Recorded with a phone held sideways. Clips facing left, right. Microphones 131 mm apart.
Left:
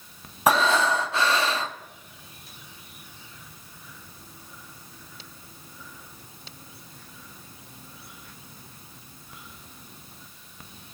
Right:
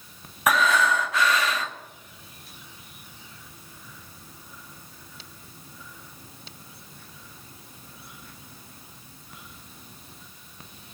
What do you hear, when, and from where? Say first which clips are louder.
0.5 s breathing: left 1 dB; 30° left (ahead or behind), 0.6 m